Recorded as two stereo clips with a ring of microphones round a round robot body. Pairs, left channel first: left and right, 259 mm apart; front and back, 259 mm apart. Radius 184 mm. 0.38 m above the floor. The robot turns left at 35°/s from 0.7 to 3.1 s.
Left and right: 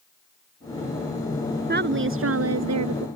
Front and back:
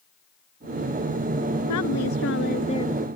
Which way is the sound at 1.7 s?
40° right.